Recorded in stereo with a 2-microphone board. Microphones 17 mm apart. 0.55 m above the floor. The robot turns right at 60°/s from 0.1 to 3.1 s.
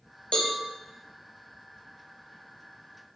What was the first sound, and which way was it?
A cowbell, 75° left (ahead or behind).